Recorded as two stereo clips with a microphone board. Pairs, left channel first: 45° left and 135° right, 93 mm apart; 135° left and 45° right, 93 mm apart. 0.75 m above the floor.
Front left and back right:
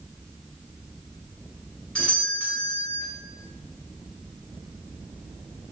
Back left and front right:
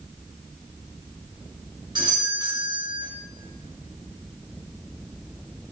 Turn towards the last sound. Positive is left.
turn(degrees=-30)